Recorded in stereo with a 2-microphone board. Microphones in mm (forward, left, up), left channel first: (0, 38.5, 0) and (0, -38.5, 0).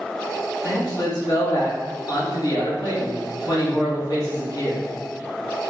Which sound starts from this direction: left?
A man speaking, at 0.6 s.